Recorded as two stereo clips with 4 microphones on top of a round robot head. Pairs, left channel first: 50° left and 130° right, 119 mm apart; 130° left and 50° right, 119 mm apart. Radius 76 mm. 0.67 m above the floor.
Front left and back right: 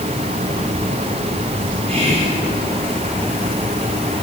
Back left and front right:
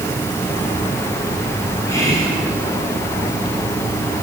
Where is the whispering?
165° right, 3.5 m.